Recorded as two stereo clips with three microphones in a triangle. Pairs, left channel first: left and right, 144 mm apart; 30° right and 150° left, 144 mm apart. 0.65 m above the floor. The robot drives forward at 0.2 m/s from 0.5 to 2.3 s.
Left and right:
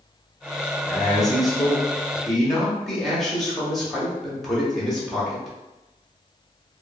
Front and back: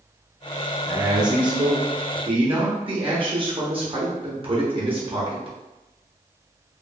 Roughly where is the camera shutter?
No camera shutter in this recording.